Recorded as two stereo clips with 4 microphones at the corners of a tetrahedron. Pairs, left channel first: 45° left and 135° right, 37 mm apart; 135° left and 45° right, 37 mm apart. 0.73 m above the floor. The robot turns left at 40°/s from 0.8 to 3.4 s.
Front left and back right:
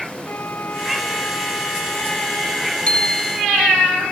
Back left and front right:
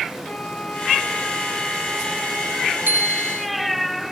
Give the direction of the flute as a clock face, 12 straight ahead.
10 o'clock.